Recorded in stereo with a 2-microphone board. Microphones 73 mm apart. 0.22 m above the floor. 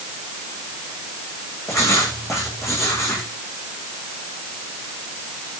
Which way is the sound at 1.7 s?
40° left (ahead or behind).